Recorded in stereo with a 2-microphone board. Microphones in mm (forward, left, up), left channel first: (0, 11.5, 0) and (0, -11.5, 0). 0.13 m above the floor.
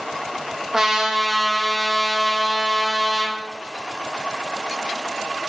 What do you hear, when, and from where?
0.7 s a trumpet: 25° right (ahead or behind), 2.5 m